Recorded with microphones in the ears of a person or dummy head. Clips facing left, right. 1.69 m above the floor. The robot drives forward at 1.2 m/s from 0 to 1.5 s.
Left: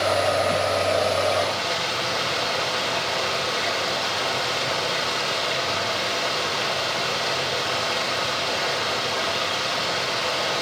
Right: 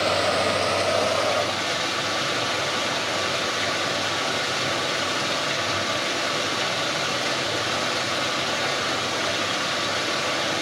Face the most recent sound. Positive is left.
turn(degrees=-30)  # may be behind; listen again after turning